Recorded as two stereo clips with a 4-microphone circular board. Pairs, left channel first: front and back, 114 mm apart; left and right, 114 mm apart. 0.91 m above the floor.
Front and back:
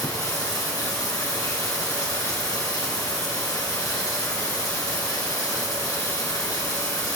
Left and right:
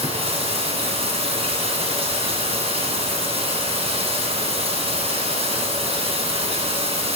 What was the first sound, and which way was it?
Running water, 60° right.